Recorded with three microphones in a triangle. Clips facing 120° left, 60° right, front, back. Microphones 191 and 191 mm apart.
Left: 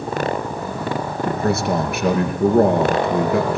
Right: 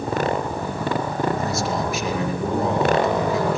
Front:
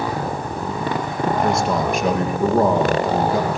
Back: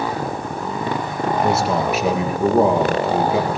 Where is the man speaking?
95° left, 4.5 m.